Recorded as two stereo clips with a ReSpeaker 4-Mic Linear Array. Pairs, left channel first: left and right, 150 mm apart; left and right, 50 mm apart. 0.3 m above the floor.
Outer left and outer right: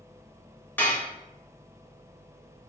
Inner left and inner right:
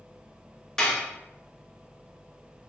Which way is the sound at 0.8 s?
15° left (ahead or behind).